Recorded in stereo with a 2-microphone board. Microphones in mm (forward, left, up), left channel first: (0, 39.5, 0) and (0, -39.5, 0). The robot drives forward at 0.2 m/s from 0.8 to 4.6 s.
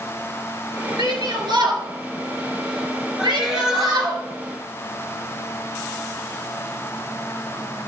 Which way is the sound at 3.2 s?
10° right (ahead or behind).